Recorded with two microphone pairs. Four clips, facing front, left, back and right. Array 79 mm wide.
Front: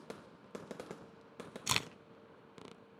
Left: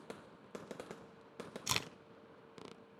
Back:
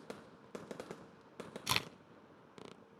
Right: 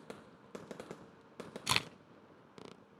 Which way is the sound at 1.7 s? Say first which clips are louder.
Right 5 dB, even; 90° right.